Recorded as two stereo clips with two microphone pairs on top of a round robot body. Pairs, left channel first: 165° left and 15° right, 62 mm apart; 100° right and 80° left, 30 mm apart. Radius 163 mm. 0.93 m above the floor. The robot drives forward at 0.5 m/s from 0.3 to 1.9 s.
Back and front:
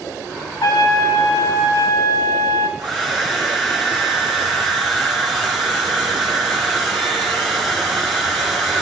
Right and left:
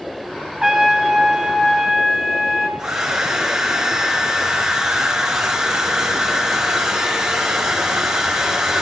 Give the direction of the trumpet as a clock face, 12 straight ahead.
7 o'clock.